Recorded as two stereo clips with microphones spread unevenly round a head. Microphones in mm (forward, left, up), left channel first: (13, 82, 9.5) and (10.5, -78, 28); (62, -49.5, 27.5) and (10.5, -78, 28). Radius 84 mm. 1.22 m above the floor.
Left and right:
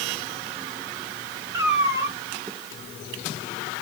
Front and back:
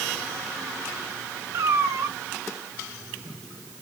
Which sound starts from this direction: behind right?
A cat meowing, at 1.5 s.